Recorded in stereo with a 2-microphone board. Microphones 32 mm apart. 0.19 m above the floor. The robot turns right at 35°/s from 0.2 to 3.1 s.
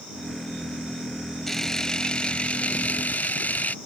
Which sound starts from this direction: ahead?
A camera shutter, at 1.5 s.